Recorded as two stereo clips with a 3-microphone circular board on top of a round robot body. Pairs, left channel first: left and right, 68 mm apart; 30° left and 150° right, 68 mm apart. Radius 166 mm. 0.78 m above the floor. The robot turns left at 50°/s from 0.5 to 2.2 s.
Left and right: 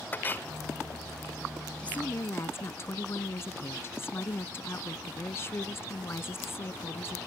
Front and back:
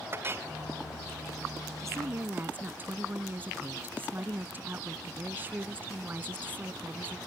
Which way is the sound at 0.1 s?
155° left.